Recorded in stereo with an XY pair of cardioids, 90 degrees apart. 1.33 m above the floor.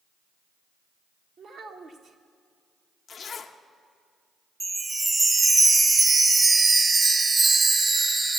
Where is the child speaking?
55° right, 1.2 m.